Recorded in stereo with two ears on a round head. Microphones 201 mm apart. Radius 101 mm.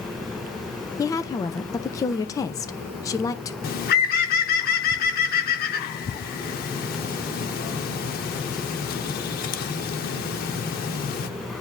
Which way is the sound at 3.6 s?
40° left (ahead or behind).